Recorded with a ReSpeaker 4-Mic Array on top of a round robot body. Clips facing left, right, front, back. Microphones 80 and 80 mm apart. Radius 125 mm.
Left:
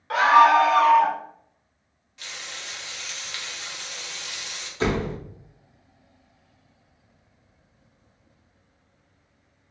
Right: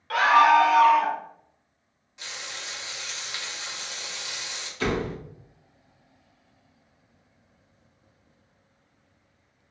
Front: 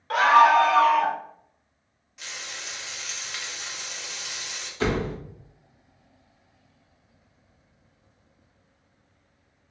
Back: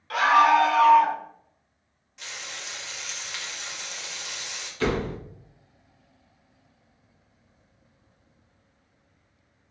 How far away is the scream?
About 1.2 m.